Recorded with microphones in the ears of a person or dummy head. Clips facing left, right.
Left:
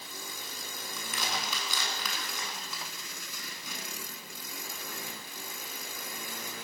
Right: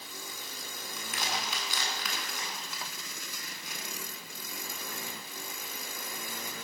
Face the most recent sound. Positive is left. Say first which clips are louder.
# even
turn(degrees=85)